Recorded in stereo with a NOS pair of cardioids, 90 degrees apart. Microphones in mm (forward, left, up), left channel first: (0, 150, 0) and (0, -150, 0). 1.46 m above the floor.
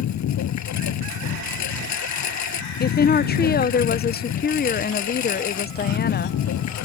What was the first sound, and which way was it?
A lawn mower, 65° left.